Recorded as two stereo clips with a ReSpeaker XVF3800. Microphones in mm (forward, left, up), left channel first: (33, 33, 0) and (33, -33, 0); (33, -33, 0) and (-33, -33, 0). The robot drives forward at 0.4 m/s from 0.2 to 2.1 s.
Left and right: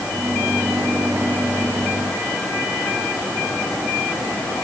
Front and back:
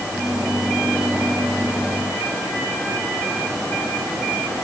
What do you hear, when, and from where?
Only background noise.